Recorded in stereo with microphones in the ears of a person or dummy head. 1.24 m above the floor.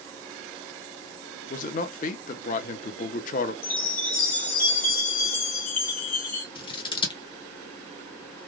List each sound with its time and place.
1.5 s a man speaking: 40° left (ahead or behind), 0.6 m
3.6 s a chime: 35° left (ahead or behind), 1.0 m
6.5 s scissors: 20° left (ahead or behind), 0.6 m